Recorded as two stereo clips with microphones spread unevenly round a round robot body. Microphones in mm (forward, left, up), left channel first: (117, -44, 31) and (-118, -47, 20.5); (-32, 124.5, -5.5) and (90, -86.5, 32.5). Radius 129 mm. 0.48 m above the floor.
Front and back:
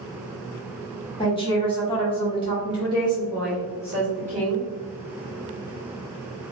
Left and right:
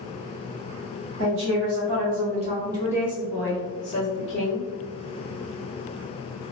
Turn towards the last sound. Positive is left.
turn(degrees=85)